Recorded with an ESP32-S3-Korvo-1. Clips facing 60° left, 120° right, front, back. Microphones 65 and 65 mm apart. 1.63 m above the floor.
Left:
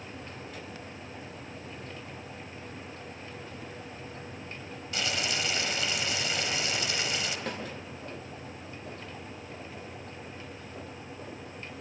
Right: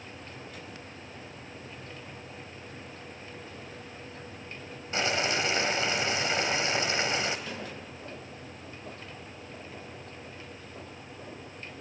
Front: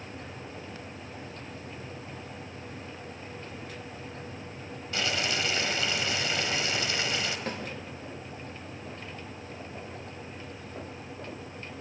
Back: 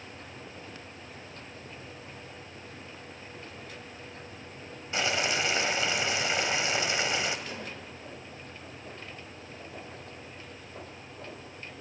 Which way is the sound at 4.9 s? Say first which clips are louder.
Right 4 dB, back 2 dB; 135° right.